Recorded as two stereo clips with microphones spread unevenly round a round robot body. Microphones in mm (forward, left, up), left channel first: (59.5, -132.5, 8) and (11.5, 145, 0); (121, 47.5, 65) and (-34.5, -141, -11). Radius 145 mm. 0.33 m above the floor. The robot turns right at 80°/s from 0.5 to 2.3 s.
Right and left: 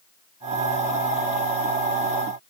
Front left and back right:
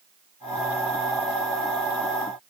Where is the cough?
No cough in this recording.